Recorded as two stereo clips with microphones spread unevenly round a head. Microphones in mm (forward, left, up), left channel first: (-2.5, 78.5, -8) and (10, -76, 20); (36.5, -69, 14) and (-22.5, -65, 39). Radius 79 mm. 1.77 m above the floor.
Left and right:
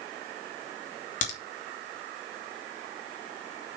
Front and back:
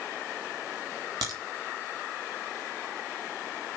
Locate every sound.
1.2 s a crack: 135° left, 3 m